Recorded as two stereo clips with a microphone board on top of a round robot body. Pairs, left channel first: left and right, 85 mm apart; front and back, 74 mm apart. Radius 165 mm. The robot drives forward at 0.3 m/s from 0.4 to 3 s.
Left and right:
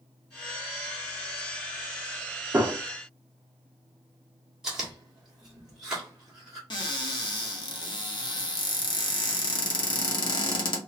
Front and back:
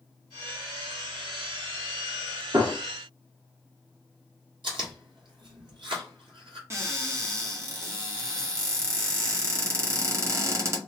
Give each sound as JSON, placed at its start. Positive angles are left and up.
{"t": 2.5, "sound": "a gunshot", "azimuth_deg": -160, "distance_m": 1.4}
{"t": 4.6, "sound": "chewing", "azimuth_deg": -175, "distance_m": 1.5}
{"t": 6.7, "sound": "a cupboard door", "azimuth_deg": 125, "distance_m": 1.3}